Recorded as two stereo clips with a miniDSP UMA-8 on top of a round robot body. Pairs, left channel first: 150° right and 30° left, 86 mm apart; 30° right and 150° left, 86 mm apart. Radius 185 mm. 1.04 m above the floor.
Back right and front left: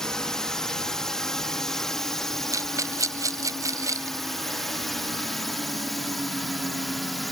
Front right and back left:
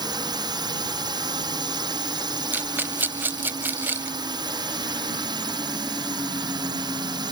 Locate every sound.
0.0 s a drone: 125° left; by 7.3 s 120° left
2.5 s a rattle: 80° left